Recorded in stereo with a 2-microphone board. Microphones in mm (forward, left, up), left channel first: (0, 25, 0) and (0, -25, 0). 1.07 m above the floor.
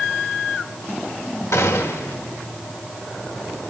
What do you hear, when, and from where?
1.5 s a gunshot: 70° left (ahead or behind), 1.6 m